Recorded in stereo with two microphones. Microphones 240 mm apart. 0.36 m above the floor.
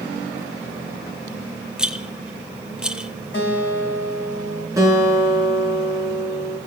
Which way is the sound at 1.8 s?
5° right (ahead or behind).